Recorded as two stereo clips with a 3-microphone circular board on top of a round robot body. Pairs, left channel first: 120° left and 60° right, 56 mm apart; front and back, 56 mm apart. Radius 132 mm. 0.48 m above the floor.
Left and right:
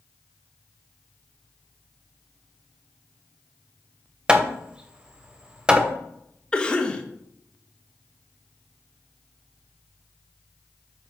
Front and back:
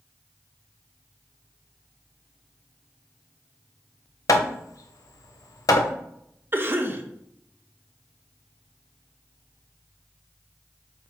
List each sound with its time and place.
4.3 s hammering: 15° left, 0.8 m
6.5 s a cough: straight behind, 1.5 m